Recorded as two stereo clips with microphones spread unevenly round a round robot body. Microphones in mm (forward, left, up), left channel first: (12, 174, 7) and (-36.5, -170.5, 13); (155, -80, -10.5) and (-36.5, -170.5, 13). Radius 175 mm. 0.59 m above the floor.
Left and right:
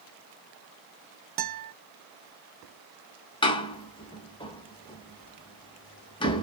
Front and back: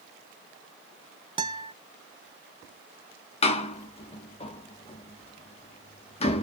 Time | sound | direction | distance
1.4 | a guitar | 85° right | 0.7 m
3.4 | a door slam | 20° left | 0.5 m